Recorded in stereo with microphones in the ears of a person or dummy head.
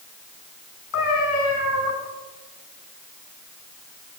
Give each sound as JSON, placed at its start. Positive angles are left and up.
{"t": 0.9, "sound": "a cat meowing", "side_deg": 80, "distance_m": 8.5}